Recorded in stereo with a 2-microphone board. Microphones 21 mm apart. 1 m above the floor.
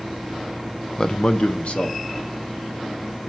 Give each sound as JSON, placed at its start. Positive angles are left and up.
{"t": 1.0, "sound": "a man speaking", "side_deg": 30, "distance_m": 0.6}